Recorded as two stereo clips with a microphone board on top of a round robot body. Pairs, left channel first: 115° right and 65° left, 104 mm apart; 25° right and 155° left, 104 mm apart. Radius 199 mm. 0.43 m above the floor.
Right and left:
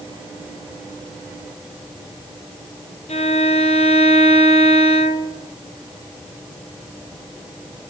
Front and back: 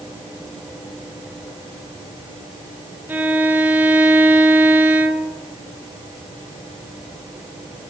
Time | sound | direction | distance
3.1 | a violin | 130° right | 1.7 m